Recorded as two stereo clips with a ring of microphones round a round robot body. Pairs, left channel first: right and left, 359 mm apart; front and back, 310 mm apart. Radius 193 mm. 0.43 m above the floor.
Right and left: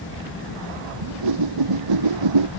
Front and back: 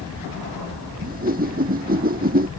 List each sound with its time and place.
1.0 s a whoosh: 115° left